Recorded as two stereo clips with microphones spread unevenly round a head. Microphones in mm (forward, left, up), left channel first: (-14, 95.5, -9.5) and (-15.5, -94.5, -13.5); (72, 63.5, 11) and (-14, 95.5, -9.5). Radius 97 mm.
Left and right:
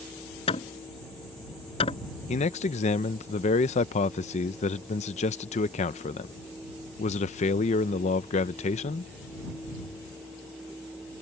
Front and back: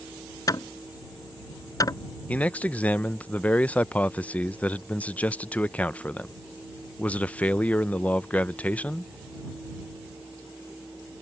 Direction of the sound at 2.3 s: 65° left.